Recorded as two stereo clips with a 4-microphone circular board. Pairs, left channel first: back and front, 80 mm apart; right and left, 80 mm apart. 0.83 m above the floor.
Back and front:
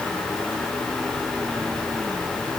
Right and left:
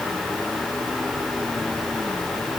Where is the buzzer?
No buzzer in this recording.